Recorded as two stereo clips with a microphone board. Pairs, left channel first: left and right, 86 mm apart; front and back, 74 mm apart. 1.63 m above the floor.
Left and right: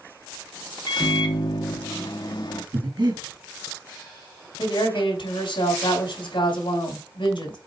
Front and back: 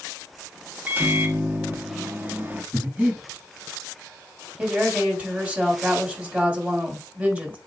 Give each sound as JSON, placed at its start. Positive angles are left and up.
{"t": 0.9, "sound": "a microwave", "azimuth_deg": 115, "distance_m": 1.0}
{"t": 2.7, "sound": "breathing", "azimuth_deg": -110, "distance_m": 4.0}
{"t": 4.6, "sound": "a woman speaking", "azimuth_deg": 105, "distance_m": 3.5}